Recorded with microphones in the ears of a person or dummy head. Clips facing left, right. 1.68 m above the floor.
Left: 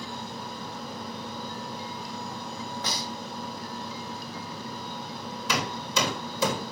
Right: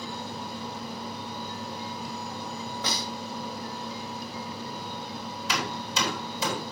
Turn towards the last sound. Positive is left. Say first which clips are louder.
# left 2 dB
turn(degrees=85)